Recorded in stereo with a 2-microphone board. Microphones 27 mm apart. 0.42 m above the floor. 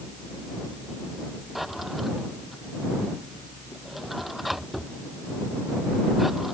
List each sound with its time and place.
1.6 s a drawer: 5° right (ahead or behind)